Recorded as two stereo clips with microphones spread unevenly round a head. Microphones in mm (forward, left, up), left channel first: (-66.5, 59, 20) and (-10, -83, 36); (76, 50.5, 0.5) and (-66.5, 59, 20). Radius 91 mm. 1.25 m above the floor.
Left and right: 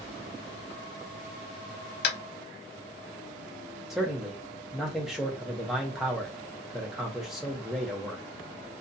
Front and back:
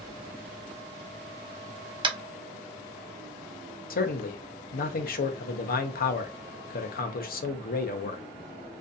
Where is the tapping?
125° left, 0.7 m.